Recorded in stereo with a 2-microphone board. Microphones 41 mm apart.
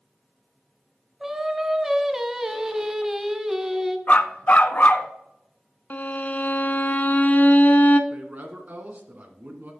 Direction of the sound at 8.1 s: 40° right (ahead or behind).